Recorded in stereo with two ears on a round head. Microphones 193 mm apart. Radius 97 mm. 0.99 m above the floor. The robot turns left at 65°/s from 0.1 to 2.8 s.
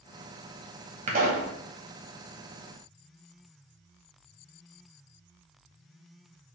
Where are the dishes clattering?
I don't hear dishes clattering.